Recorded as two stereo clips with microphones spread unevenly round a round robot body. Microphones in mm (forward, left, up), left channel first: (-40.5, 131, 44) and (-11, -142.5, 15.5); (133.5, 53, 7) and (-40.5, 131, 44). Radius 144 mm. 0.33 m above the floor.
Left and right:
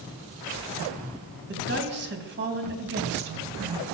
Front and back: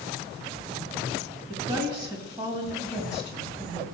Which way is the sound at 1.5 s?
125° right.